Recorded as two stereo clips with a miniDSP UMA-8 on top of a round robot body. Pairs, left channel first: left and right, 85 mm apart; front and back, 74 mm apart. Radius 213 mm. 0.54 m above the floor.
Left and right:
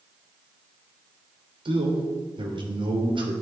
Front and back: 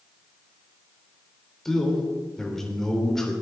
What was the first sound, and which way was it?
A man speaking, 85° right.